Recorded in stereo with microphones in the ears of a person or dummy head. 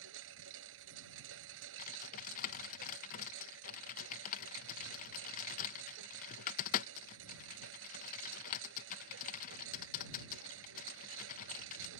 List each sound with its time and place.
0.0 s a lawn mower: 75° right (ahead or behind)
1.8 s typing on a keyboard: 45° left (ahead or behind)